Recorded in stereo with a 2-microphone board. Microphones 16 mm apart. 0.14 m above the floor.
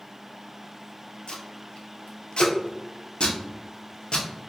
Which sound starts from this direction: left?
Tape being pulled, at 1.3 s.